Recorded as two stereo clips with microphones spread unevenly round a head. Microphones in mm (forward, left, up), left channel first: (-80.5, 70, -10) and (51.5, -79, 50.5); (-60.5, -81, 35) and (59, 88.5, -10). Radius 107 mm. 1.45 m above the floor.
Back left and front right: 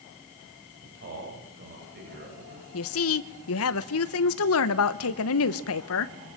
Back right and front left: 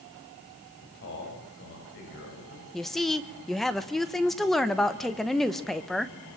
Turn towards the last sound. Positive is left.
turn(degrees=150)